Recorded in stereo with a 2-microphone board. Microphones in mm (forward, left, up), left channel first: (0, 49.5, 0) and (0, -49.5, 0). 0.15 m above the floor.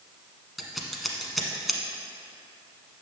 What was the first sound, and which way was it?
Scissors, centre (ahead or behind).